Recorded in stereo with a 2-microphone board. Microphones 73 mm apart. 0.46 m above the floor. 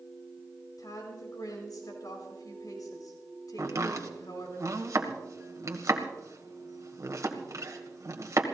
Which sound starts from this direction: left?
A woman speaking, at 0.8 s.